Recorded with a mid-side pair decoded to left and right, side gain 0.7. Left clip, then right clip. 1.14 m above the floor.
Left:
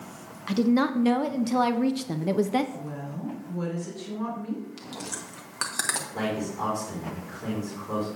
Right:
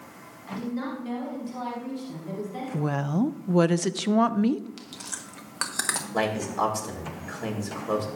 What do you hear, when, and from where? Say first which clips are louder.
0.5 s a woman speaking: left 9 dB; 55° left, 0.7 m
2.7 s a woman speaking: right 9 dB; 65° right, 0.5 m
4.8 s chewing: left 2 dB; 10° right, 1.1 m
6.1 s a man speaking: right 4 dB; 55° right, 3 m